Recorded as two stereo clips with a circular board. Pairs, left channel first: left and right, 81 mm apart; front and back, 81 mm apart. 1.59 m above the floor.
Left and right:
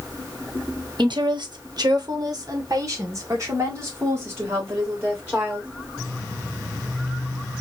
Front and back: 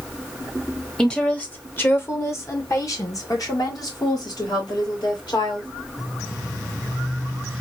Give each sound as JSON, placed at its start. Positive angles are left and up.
{"t": 1.0, "sound": "a woman speaking", "azimuth_deg": -85, "distance_m": 1.1}